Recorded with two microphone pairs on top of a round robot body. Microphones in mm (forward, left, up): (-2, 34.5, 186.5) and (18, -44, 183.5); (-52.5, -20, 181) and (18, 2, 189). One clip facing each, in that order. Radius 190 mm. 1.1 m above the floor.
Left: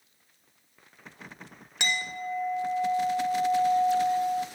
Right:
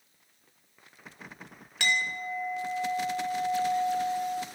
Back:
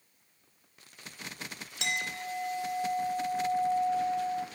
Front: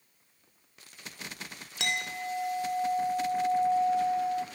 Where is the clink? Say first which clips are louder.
Right 2 dB, front 2 dB; 35° left, 0.7 m.